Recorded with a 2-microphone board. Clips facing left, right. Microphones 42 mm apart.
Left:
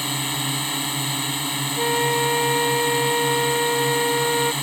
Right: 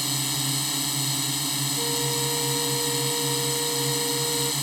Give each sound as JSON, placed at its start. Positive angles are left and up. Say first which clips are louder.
{"t": 0.0, "sound": "a drone", "louder": "left 4 dB", "side_deg": 30}
{"t": 1.8, "sound": "a flute", "louder": "left 10 dB", "side_deg": 70}